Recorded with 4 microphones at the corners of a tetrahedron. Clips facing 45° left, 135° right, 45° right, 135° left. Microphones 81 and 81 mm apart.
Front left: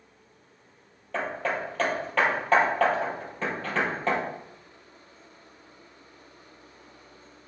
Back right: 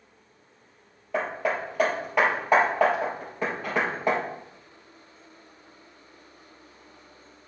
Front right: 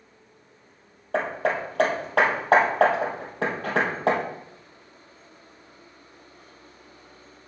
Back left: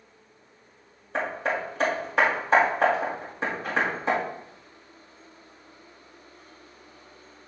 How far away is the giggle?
I don't hear a giggle.